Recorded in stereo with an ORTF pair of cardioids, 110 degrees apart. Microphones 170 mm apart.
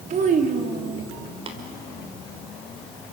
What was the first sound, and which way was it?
A child speaking, 50° right.